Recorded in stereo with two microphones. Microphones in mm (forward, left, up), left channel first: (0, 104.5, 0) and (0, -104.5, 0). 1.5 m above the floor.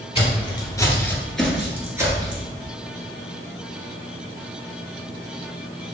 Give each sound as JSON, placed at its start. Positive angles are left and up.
{"t": 0.1, "sound": "footsteps", "side_deg": 30, "distance_m": 1.7}